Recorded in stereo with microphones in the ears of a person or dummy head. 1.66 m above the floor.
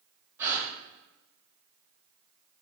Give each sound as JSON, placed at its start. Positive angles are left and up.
{"t": 0.4, "sound": "a gasp", "side_deg": -10, "distance_m": 0.8}